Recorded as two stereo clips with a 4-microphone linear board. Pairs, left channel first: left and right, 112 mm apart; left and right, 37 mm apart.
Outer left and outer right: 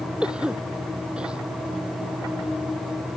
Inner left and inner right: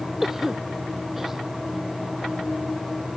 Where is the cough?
10° right (ahead or behind).